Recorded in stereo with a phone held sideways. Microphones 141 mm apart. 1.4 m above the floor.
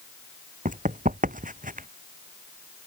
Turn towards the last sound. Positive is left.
turn(degrees=-75)  # may be behind; listen again after turning